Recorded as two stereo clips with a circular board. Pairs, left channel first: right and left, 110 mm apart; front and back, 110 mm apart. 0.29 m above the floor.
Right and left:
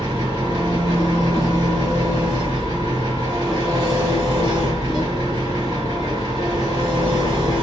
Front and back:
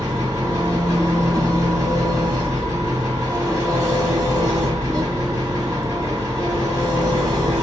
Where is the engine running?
125° left, 2 m.